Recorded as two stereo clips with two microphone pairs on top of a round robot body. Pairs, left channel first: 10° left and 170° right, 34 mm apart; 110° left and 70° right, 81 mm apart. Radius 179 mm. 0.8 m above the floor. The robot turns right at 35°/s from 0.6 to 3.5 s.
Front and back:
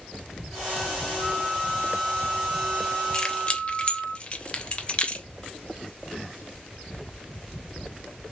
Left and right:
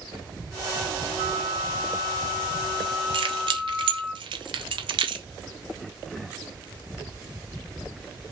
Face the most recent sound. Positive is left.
turn(degrees=-50)